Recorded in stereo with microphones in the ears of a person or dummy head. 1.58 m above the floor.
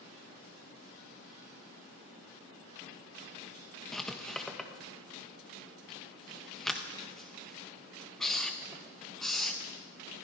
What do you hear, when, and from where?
3.9 s writing: 5° left (ahead or behind), 1.3 m